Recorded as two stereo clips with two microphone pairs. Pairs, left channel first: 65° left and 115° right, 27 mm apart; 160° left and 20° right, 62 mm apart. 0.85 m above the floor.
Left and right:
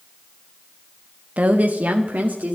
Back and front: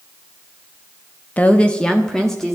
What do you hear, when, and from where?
1.4 s a woman speaking: 135° right, 1.0 m; by 2.6 s 110° right, 2.0 m